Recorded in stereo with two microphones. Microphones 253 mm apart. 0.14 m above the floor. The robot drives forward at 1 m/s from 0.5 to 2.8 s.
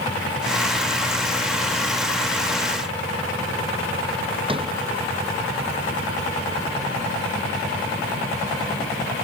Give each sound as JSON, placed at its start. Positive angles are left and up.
{"t": 4.5, "sound": "a sliding door", "side_deg": -20}